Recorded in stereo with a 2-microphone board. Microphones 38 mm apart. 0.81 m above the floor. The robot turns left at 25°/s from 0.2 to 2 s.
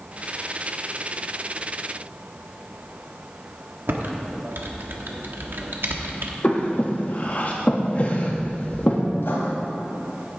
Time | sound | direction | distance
3.9 | typing on a keyboard | 65° right (ahead or behind) | 1.1 m
6.4 | breathing | 45° left (ahead or behind) | 1.3 m
9.2 | writing | 75° left (ahead or behind) | 2.5 m